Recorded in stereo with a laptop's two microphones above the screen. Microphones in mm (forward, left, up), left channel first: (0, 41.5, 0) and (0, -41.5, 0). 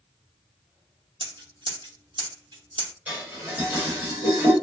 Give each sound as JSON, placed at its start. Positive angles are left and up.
{"t": 1.2, "sound": "scissors", "side_deg": -70, "distance_m": 0.9}
{"t": 3.1, "sound": "dishes clattering", "side_deg": -15, "distance_m": 1.2}